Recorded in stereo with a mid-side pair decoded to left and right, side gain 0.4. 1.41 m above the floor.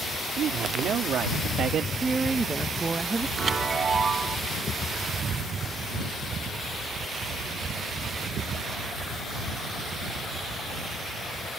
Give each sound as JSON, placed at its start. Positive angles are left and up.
{"t": 0.4, "sound": "a man speaking", "azimuth_deg": -65}
{"t": 2.0, "sound": "a woman speaking", "azimuth_deg": -30}
{"t": 3.4, "sound": "a chime", "azimuth_deg": -45}